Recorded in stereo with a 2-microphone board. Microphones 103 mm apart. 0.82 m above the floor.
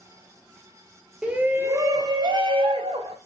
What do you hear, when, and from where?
1.2 s a shout: 10° right (ahead or behind), 1.9 m; by 3.2 s 65° right (ahead or behind), 3 m